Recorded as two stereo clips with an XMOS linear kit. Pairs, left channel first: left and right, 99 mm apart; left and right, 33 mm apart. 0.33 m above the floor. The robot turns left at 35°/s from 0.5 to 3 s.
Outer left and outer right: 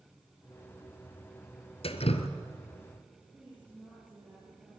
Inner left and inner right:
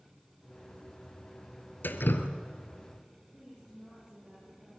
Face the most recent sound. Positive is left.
turn(degrees=-15)  # may be behind; listen again after turning